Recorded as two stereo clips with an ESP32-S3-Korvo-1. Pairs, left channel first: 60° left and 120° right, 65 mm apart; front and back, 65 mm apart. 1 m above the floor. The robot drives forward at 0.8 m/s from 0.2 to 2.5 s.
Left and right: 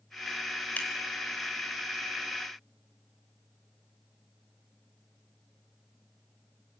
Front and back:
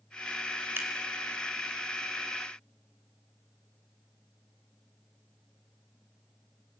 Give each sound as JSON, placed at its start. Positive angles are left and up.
{"t": 0.8, "sound": "scissors", "azimuth_deg": 125, "distance_m": 4.0}